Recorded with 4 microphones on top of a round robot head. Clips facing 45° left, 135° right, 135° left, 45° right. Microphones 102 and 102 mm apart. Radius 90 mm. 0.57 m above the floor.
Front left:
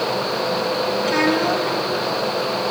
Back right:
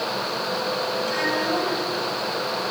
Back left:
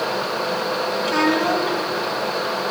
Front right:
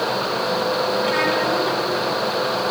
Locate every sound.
1.0 s a child speaking: 75° left, 3.5 m